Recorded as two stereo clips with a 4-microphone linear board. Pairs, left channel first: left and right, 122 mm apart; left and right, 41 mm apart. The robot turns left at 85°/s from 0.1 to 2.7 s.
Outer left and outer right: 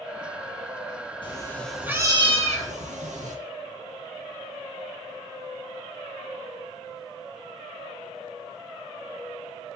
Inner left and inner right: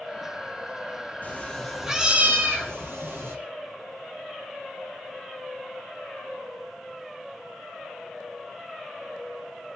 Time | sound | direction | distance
1.2 | a cat meowing | 45° left | 2.5 m